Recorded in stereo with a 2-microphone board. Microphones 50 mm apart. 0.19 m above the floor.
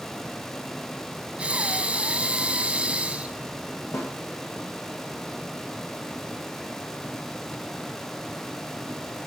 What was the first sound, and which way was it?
Breathing, 25° right (ahead or behind).